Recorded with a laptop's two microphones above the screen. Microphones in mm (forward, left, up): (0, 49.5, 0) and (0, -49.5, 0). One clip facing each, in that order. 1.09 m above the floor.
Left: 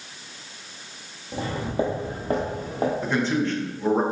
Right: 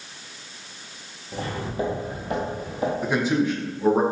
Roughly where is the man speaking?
Centre.